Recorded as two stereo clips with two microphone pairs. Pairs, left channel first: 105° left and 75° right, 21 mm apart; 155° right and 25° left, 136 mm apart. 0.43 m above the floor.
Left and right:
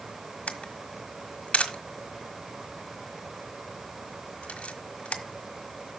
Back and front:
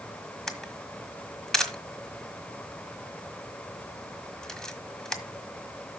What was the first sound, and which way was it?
A camera shutter, 120° left.